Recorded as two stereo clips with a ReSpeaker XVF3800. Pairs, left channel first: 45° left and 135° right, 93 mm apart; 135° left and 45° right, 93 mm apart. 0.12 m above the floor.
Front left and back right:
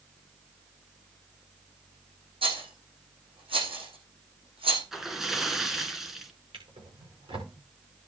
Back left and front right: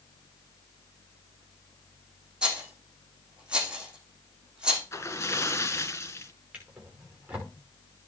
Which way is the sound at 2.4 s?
125° right.